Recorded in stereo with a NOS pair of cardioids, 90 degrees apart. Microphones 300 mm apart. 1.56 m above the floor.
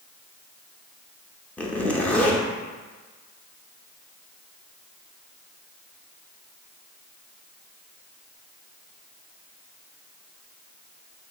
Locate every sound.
1.6 s a zipper: 5° left, 0.5 m